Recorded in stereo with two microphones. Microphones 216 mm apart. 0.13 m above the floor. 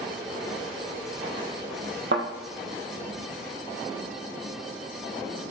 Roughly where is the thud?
Right.